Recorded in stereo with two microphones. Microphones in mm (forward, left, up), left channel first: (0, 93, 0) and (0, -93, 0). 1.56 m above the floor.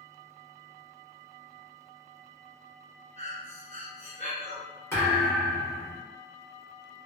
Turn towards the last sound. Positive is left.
turn(degrees=15)  # may be behind; listen again after turning